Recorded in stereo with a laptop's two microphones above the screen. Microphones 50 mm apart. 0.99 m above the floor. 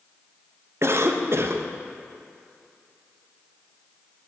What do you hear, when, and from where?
0.8 s a cough: 55° right (ahead or behind), 0.6 m